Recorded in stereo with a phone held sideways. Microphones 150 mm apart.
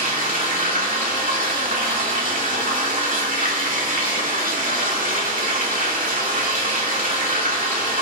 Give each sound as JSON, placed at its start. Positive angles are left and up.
{"t": 0.0, "sound": "running water", "side_deg": -65, "distance_m": 2.0}